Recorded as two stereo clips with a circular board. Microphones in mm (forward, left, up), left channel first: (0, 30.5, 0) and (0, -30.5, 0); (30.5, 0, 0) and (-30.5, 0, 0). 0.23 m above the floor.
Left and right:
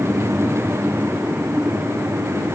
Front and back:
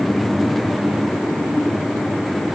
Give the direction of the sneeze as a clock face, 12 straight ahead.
I don't hear a sneeze.